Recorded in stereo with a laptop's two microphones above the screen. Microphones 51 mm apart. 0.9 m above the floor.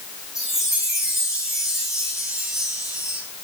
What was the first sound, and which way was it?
A chime, 10° right (ahead or behind).